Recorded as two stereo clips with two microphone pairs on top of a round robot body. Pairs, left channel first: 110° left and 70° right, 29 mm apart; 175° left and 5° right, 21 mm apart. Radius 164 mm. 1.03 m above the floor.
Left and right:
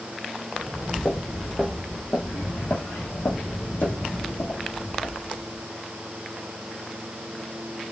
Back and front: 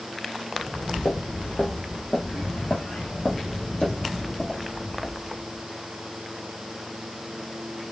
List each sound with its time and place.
0.5 s footsteps: 155° right, 1.3 m; by 5.6 s 100° left, 3 m